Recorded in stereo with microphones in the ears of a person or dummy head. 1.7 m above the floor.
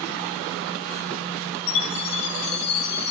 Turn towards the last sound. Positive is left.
turn(degrees=55)  # may be behind; listen again after turning